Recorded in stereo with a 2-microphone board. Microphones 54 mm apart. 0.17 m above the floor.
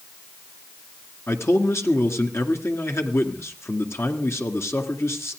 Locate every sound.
1.3 s a man speaking: 55° left (ahead or behind), 2 m